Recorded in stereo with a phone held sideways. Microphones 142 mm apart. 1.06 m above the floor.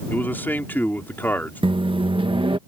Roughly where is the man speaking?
Centre.